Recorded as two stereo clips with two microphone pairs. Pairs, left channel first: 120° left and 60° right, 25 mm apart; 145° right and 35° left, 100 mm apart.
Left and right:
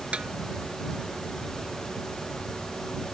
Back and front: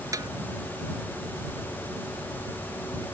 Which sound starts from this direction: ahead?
A snare drum, at 0.1 s.